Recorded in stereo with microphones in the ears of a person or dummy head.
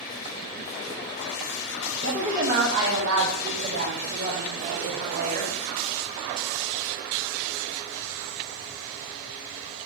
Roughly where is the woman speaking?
Right.